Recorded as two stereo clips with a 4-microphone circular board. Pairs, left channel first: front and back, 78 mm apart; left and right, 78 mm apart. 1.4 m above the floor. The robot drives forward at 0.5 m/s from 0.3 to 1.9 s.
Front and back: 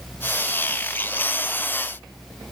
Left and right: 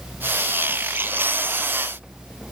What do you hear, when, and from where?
Only background noise.